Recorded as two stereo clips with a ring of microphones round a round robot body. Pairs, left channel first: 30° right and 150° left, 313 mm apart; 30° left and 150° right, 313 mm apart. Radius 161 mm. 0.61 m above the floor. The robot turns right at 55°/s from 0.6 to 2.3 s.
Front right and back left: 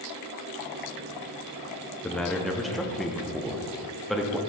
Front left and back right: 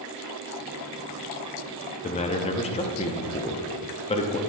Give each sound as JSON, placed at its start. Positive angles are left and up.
{"t": 2.0, "sound": "a man speaking", "azimuth_deg": 45, "distance_m": 0.5}